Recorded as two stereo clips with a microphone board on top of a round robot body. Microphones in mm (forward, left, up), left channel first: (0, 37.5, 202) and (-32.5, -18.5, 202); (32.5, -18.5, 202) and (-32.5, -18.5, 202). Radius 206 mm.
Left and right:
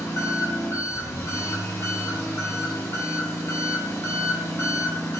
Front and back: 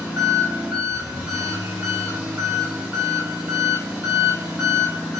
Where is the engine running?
110° left, 2.5 m.